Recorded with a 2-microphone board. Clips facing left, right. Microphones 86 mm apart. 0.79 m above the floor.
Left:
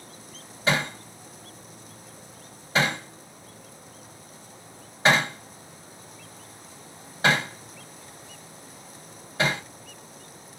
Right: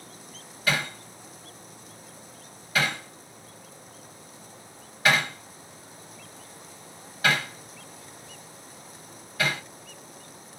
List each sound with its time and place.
0.7 s hammering: 30° left (ahead or behind), 2.5 m